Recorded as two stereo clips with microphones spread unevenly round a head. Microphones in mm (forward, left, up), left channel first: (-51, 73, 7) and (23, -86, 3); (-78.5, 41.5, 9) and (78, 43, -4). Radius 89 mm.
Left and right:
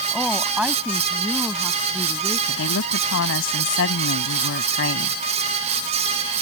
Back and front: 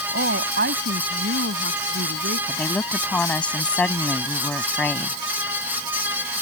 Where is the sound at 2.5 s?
100° left.